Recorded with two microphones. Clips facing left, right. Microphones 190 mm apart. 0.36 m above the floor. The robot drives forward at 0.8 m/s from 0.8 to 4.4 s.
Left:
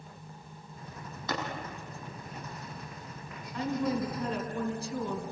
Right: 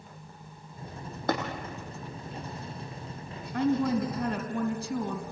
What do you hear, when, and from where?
1.3 s tapping: 55° right (ahead or behind), 4.5 m
3.5 s a woman speaking: 65° right (ahead or behind), 3 m; by 5.2 s 70° right (ahead or behind), 3 m